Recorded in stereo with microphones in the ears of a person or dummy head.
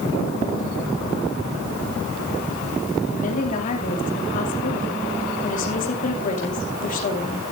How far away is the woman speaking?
About 2.5 m.